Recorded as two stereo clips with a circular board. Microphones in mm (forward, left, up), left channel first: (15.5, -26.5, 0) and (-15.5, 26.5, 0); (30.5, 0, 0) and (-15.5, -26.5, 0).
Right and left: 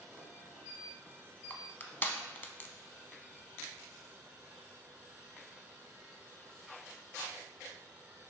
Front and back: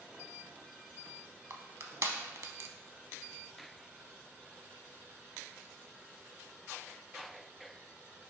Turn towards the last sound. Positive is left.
turn(degrees=-115)